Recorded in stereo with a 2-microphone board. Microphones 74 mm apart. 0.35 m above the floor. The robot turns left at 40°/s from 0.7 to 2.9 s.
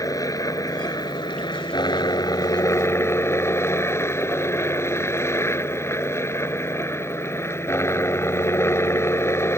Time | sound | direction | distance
0.0 | a helicopter | 125° left | ?